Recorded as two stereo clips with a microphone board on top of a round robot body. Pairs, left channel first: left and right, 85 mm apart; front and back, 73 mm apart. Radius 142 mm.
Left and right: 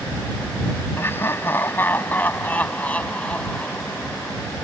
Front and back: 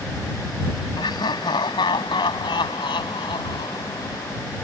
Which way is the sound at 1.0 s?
25° left.